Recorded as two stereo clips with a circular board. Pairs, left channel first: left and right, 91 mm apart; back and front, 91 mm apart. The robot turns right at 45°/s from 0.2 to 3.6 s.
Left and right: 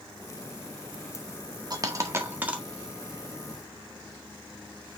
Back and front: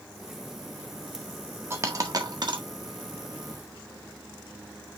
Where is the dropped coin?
55° right, 1.5 m; by 2.6 s 15° right, 1.5 m.